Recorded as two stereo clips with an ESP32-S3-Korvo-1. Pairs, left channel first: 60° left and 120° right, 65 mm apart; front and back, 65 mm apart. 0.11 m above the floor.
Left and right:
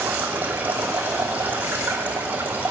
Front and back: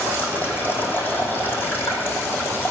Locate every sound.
0.0 s running water: 55° right, 2.5 m